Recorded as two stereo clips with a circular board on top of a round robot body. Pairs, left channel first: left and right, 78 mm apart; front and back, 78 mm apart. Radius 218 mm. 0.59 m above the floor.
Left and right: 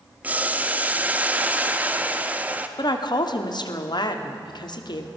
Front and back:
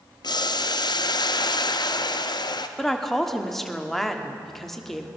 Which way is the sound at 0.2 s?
20° right.